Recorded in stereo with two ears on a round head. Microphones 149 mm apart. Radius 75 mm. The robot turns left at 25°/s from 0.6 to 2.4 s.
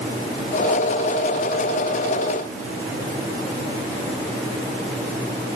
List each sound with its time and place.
Only background noise.